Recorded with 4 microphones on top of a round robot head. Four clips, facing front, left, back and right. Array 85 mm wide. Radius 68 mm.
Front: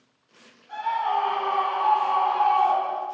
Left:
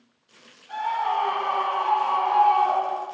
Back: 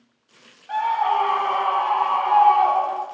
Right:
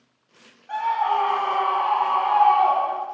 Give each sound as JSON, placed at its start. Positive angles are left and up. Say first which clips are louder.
{"t": 0.7, "sound": "a scream", "louder": "right 3 dB, back 4 dB", "azimuth_deg": -155, "distance_m": 4.0}